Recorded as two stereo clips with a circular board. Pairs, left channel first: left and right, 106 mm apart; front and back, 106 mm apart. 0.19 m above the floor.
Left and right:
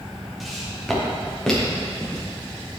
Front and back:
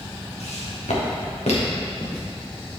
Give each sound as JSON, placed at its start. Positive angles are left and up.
{"t": 0.4, "sound": "footsteps", "azimuth_deg": 0, "distance_m": 3.0}